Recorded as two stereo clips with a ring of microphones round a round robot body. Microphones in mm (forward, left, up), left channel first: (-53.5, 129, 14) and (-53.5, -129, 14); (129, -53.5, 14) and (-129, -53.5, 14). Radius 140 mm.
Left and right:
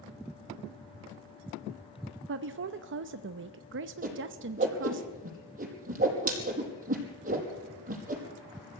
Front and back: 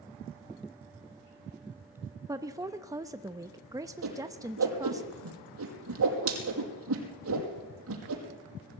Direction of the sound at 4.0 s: 150° right.